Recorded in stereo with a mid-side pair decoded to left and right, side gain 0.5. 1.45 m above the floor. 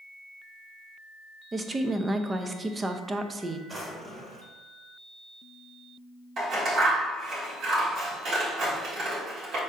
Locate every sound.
1.5 s a woman speaking: 25° right, 0.6 m
3.7 s a drawer: 35° right, 1.7 m
6.4 s scissors: 65° right, 2.0 m